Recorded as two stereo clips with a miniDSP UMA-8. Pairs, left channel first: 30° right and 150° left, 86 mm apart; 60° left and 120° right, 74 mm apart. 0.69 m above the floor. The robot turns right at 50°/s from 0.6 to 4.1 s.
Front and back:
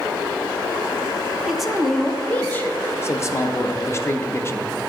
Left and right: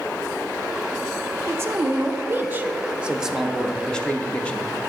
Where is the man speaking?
130° right, 0.5 m; by 4.7 s straight ahead, 0.5 m.